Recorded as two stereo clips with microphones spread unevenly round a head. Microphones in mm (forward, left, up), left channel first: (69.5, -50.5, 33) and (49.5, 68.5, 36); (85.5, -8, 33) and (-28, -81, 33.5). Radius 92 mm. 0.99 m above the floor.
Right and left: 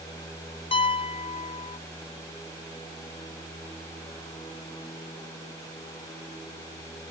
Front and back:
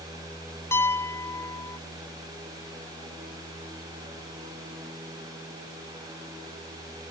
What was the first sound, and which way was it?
A piano, 40° right.